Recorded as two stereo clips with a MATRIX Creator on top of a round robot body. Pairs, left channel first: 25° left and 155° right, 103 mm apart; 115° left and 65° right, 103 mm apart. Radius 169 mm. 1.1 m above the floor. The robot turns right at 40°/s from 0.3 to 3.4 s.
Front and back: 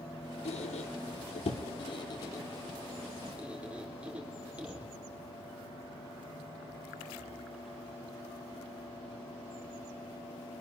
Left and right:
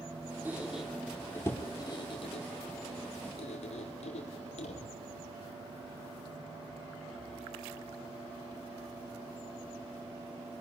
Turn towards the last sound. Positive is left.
turn(degrees=125)